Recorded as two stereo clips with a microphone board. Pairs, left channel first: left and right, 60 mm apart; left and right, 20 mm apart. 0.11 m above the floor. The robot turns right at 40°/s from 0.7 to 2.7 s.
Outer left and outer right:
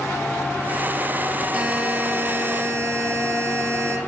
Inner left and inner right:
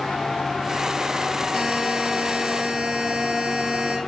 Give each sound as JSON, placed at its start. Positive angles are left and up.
{"t": 1.5, "sound": "a buzzer", "azimuth_deg": -155, "distance_m": 1.2}